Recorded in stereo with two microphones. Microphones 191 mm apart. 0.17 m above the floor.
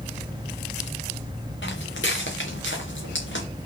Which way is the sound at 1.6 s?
75° left (ahead or behind).